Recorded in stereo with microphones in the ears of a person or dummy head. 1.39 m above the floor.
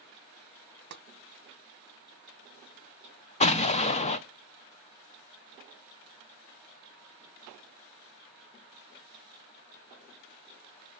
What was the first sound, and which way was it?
Tapping, 55° right (ahead or behind).